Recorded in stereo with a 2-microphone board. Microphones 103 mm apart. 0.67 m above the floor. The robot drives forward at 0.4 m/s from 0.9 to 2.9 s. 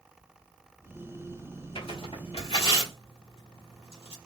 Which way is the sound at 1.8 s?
65° left (ahead or behind).